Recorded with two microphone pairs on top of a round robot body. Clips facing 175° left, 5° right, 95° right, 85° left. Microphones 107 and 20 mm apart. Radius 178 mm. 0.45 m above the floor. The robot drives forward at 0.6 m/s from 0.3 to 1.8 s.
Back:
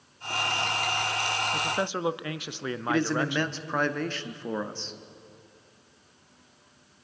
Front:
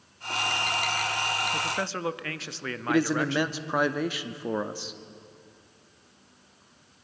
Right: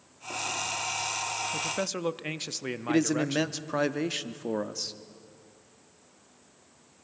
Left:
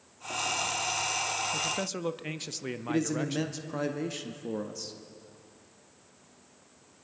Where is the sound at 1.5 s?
95° right, 0.7 m; by 3.6 s 125° right, 0.7 m.